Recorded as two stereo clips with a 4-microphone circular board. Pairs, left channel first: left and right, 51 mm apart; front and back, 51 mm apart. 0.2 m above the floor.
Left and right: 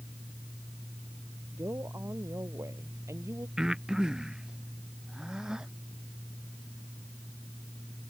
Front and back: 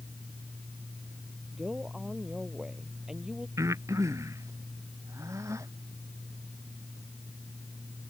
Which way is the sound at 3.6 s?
165° right.